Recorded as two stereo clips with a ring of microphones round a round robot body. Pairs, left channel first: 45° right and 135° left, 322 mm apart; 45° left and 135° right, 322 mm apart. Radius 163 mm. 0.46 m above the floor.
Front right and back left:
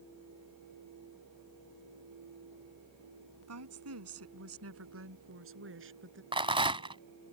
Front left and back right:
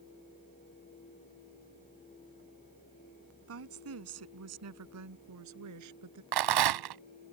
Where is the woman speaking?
175° left; by 6.2 s 170° right.